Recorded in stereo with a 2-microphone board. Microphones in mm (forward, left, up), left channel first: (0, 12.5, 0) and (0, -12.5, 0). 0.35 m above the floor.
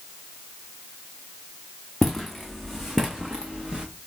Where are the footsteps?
5° left (ahead or behind), 1.2 m; by 3.9 s 35° right (ahead or behind), 1.4 m.